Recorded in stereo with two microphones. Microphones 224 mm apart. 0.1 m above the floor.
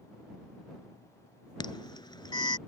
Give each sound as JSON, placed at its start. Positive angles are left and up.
{"t": 1.6, "sound": "an alarm", "side_deg": 20}